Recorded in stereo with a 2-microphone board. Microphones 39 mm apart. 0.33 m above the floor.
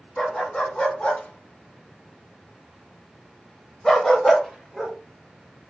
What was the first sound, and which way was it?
A dog barking, 25° left (ahead or behind).